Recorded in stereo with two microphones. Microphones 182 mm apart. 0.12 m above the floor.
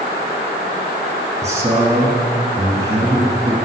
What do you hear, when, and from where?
1.4 s a man speaking: 15° right (ahead or behind), 1.4 m